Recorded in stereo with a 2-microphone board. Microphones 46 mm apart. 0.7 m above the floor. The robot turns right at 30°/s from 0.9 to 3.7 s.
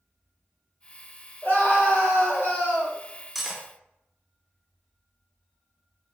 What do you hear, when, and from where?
1.4 s a scream: 60° left, 2 m; by 3.0 s 105° left, 2 m
3.4 s cutlery clinking: centre (ahead or behind), 0.7 m; by 3.6 s 10° right (ahead or behind), 0.7 m